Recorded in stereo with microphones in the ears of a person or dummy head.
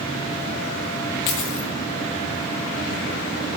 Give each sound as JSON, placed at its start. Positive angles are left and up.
{"t": 1.3, "sound": "a dropped coin", "side_deg": 25, "distance_m": 0.9}